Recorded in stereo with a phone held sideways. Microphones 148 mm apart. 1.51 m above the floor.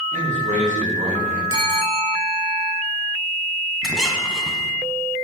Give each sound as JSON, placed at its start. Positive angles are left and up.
{"t": 0.1, "sound": "a man speaking", "side_deg": -55, "distance_m": 4.5}
{"t": 1.5, "sound": "a bell", "side_deg": -35, "distance_m": 5.0}
{"t": 3.8, "sound": "a squeak", "side_deg": 0, "distance_m": 1.6}